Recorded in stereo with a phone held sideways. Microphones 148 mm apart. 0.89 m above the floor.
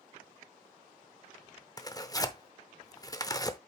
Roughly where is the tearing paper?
Left.